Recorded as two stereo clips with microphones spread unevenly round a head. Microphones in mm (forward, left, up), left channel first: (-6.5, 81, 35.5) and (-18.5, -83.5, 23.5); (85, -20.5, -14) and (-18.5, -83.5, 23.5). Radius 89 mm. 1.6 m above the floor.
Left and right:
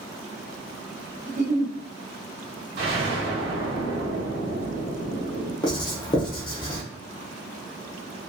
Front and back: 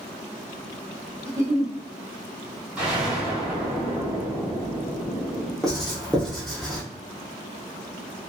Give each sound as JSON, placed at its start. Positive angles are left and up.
{"t": 1.3, "sound": "a giggle", "azimuth_deg": -75, "distance_m": 1.0}
{"t": 2.8, "sound": "an explosion", "azimuth_deg": -85, "distance_m": 1.8}
{"t": 5.6, "sound": "writing", "azimuth_deg": 135, "distance_m": 0.7}